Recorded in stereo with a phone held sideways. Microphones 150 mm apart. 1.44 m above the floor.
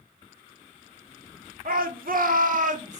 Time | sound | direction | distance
1.6 | a shout | 70° right (ahead or behind) | 0.6 m